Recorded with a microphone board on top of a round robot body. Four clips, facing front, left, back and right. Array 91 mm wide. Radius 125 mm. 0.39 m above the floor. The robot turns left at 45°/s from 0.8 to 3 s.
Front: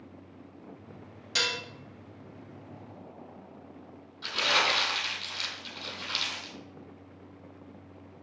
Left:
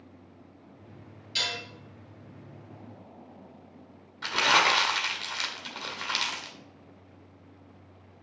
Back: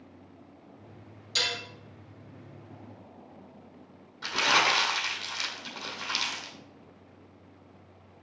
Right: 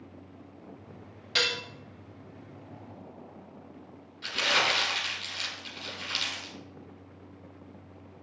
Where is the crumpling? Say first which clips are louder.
Left 5 dB, back 3 dB; 105° left, 2 m.